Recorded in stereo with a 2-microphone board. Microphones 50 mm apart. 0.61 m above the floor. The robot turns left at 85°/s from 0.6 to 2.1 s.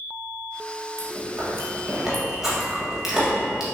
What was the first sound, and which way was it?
Chewing, 75° right (ahead or behind).